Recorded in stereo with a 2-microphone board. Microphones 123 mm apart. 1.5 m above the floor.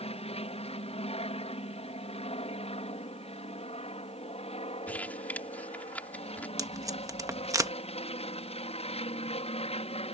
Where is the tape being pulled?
25° right (ahead or behind).